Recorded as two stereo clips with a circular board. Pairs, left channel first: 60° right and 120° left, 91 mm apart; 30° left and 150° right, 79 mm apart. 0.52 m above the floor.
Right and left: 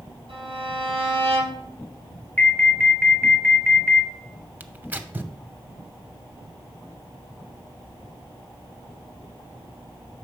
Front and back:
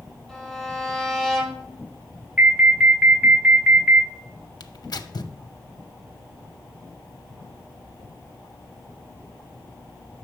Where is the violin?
125° left, 4.5 m.